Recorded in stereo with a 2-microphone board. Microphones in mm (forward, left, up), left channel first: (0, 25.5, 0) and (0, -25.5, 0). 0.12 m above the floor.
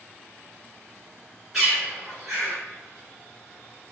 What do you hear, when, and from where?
1.5 s a bird: 5° right (ahead or behind), 1.5 m